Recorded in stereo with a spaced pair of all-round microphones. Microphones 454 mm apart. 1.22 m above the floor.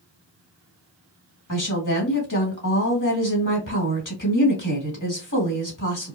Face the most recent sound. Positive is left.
turn(degrees=40)  # may be behind; listen again after turning